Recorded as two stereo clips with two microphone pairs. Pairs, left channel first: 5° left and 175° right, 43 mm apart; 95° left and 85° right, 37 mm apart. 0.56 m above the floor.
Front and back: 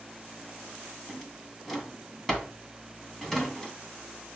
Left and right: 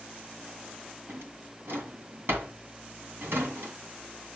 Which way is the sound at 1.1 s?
80° right.